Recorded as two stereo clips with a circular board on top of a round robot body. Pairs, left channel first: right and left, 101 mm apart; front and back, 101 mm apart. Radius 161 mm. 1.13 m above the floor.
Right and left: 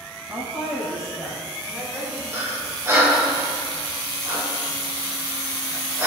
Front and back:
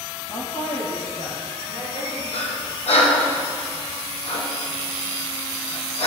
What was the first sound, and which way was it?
A woman speaking, 30° left.